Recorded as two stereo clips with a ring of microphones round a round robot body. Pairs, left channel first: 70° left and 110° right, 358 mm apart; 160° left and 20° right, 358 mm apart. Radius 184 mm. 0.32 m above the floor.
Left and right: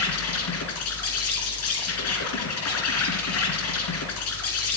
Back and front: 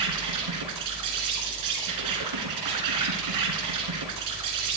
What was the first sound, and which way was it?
An insect, 15° left.